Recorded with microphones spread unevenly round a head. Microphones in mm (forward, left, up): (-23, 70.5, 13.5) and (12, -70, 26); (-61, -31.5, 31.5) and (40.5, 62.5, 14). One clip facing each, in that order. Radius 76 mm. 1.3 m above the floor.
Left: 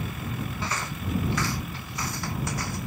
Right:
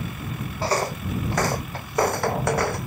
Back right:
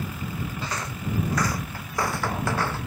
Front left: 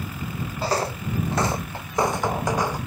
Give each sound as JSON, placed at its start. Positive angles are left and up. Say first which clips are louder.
{"t": 0.6, "sound": "footsteps", "louder": "right 8 dB, front left 7 dB", "azimuth_deg": -20}